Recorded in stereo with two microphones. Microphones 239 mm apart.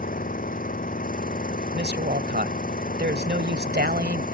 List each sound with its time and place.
0.0 s an engine running: 40° left (ahead or behind)
1.7 s a woman speaking: 45° right (ahead or behind)